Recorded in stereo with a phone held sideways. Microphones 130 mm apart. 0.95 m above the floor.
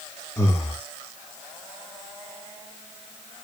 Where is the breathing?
15° left (ahead or behind), 1.3 m.